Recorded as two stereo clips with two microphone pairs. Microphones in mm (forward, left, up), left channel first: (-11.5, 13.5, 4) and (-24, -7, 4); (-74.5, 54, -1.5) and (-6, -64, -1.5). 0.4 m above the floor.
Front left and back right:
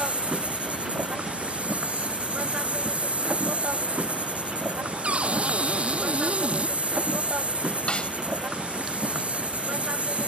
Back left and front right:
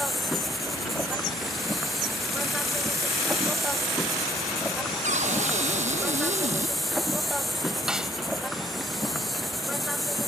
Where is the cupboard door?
90° right.